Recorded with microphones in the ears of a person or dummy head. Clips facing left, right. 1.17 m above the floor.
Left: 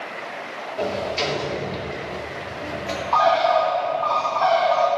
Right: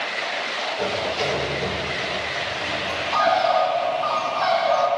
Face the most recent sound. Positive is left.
turn(degrees=-25)  # may be behind; listen again after turning